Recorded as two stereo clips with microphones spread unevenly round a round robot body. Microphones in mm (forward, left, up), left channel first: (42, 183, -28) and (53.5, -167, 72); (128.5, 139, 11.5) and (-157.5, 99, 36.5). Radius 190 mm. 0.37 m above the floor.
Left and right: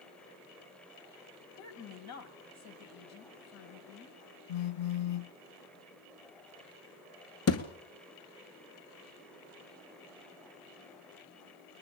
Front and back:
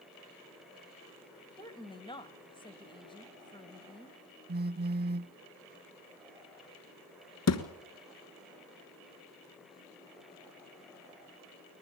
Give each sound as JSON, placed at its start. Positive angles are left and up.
{"t": 1.6, "sound": "a woman speaking", "azimuth_deg": 75, "distance_m": 2.5}
{"t": 4.5, "sound": "a phone buzzing", "azimuth_deg": 130, "distance_m": 0.6}
{"t": 7.5, "sound": "a thud", "azimuth_deg": 40, "distance_m": 1.9}